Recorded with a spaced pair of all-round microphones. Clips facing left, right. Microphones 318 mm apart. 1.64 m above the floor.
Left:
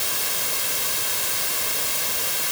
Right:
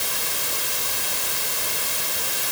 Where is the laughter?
No laughter in this recording.